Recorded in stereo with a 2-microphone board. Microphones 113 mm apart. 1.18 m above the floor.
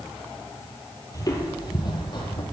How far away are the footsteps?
About 1.4 m.